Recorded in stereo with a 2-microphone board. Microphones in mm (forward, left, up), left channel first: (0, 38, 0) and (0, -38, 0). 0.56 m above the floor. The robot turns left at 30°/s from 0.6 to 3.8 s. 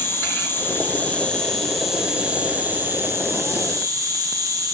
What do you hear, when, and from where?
0.0 s an insect: 35° left, 4 m; by 4.8 s 60° right, 4 m